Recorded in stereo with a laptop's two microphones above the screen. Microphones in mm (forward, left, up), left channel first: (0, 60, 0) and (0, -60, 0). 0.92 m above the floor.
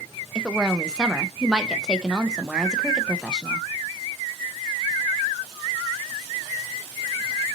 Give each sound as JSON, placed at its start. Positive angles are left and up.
{"t": 0.3, "sound": "a woman speaking", "side_deg": -5, "distance_m": 0.7}